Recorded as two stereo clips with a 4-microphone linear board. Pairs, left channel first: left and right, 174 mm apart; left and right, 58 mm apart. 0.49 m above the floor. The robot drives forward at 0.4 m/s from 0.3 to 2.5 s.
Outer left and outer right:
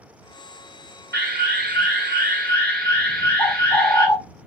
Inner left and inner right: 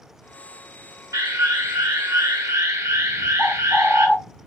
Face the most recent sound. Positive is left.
turn(degrees=20)  # may be behind; listen again after turning